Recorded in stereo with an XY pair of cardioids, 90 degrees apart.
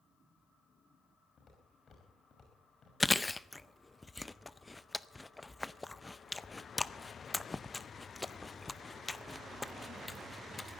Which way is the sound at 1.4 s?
55° left.